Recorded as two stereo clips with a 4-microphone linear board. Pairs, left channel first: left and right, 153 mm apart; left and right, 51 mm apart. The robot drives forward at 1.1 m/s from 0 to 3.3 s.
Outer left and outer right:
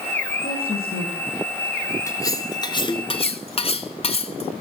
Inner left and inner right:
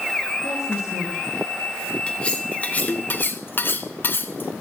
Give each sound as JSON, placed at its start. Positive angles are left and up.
{"t": 0.4, "sound": "a woman speaking", "side_deg": 70, "distance_m": 6.0}
{"t": 2.1, "sound": "cutlery clinking", "side_deg": 20, "distance_m": 2.0}